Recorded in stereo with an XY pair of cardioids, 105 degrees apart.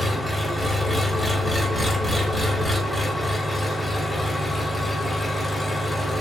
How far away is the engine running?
About 0.9 m.